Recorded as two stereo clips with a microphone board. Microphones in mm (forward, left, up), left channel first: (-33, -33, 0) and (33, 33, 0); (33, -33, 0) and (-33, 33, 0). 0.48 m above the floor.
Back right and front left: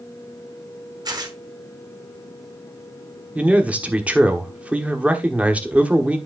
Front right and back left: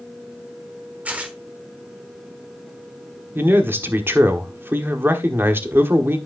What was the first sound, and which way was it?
Tearing paper, 65° left.